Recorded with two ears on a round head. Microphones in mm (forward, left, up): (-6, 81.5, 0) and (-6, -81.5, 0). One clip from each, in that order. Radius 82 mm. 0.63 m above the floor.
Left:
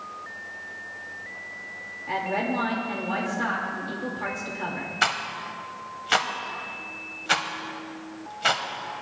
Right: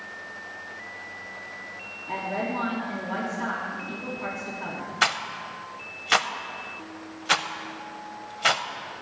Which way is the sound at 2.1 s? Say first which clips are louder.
Left 3 dB; 60° left (ahead or behind).